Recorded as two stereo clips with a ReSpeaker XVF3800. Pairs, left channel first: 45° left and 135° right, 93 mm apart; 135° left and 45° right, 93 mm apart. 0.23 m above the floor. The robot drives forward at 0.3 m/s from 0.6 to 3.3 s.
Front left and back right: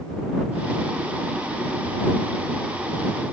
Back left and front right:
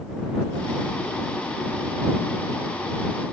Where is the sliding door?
No sliding door in this recording.